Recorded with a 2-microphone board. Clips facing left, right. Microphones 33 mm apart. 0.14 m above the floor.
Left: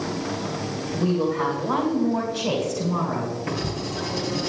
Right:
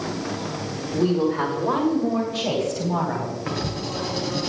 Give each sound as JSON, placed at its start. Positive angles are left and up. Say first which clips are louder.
{"t": 0.9, "sound": "a woman speaking", "louder": "right 2 dB", "side_deg": -70, "distance_m": 7.0}
{"t": 3.5, "sound": "writing", "louder": "even", "side_deg": -60, "distance_m": 2.5}